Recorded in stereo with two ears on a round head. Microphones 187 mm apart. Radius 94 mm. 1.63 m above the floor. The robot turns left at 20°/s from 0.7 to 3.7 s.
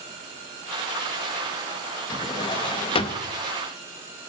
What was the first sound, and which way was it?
A drawer, 20° left (ahead or behind).